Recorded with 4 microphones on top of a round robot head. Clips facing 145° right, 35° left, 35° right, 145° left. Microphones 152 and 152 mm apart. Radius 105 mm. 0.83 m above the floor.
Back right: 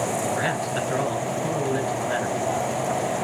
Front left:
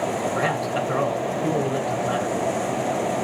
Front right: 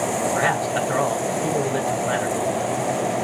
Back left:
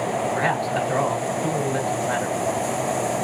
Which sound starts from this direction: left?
A man speaking, at 0.2 s.